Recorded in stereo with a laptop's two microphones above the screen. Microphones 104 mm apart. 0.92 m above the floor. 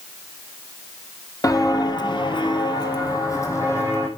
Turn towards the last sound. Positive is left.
turn(degrees=25)  # may be behind; listen again after turning